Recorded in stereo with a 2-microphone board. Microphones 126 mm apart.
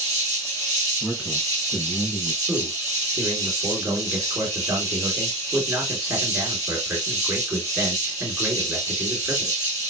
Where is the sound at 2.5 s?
20° right (ahead or behind), 1.9 m.